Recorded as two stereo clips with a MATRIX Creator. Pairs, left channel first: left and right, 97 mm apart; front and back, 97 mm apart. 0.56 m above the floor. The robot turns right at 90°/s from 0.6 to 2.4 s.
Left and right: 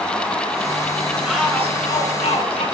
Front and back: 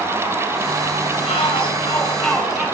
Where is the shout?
10° right, 7 m; by 2.6 s 95° left, 7 m.